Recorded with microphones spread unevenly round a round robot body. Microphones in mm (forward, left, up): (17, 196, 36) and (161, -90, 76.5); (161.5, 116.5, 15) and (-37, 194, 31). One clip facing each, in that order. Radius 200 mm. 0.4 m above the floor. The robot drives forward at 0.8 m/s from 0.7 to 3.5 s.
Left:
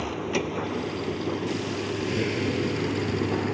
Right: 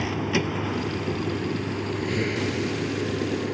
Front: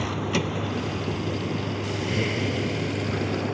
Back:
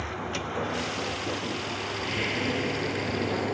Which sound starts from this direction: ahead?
A vehicle, at 0.0 s.